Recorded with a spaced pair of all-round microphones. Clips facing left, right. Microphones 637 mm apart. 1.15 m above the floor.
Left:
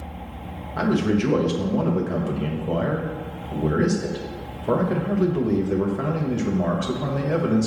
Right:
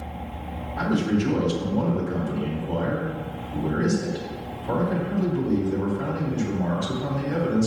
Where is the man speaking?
80° left, 1.5 m.